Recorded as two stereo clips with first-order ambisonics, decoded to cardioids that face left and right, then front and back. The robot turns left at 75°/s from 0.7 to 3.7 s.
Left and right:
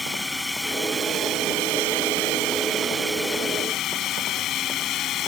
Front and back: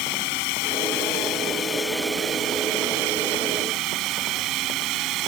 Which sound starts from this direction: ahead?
A drone, at 0.0 s.